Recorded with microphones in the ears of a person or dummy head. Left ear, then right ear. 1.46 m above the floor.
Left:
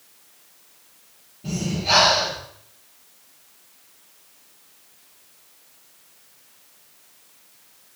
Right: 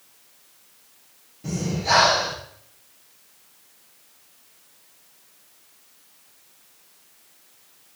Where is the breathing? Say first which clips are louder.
Even; 65° right (ahead or behind), 9.5 m.